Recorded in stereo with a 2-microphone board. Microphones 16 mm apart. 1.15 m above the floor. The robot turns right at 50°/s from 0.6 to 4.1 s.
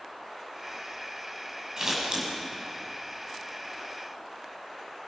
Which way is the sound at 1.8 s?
30° right (ahead or behind).